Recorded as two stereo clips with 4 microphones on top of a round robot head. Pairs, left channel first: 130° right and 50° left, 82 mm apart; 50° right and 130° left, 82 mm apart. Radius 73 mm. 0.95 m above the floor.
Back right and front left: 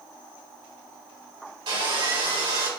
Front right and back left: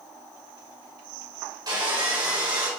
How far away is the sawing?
About 2.5 m.